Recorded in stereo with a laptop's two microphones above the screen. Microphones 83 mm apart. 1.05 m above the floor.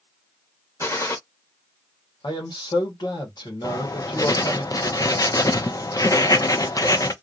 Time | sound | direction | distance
0.8 | a gunshot | 35° left (ahead or behind) | 0.9 m
2.2 | a man speaking | 65° left (ahead or behind) | 1.3 m
3.6 | writing | 45° left (ahead or behind) | 0.5 m